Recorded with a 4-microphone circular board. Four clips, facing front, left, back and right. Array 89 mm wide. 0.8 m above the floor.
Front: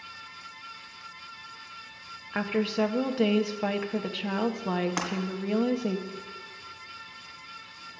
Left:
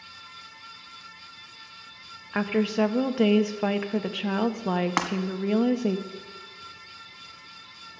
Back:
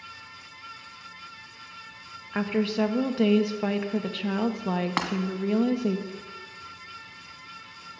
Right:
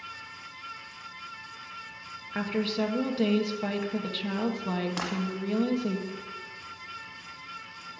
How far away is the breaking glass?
About 1.7 m.